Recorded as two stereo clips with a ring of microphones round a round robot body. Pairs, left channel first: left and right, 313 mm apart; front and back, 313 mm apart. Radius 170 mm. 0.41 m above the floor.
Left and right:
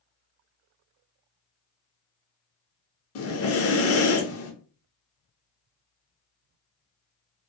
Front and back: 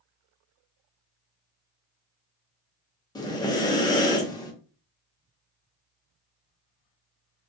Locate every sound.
3.1 s breathing: 75° left, 0.7 m